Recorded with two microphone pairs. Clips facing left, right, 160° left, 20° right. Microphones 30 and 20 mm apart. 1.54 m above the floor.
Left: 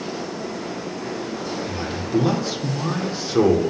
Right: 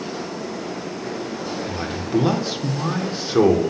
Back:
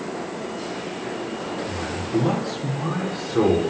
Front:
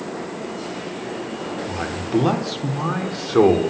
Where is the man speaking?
20° right, 1.1 m.